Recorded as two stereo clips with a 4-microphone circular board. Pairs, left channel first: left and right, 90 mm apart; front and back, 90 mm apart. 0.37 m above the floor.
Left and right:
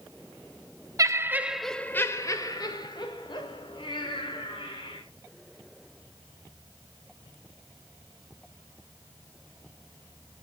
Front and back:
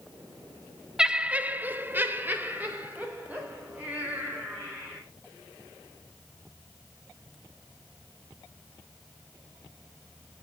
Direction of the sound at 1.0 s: 105° right.